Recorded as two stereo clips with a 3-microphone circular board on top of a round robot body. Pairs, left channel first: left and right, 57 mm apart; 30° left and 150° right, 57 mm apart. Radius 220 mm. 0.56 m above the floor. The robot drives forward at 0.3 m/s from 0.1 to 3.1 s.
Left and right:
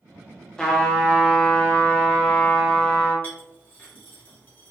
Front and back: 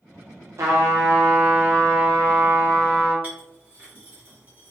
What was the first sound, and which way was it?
A trumpet, 170° left.